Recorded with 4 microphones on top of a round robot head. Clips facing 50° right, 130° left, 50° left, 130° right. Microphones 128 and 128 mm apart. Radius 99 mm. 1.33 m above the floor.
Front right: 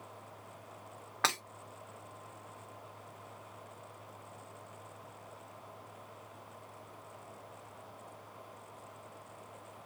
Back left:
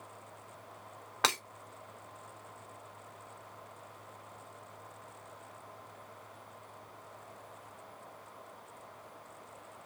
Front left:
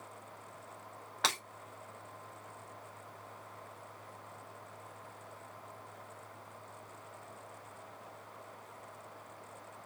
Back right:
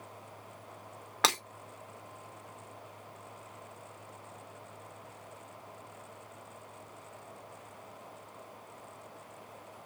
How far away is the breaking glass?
About 1.0 m.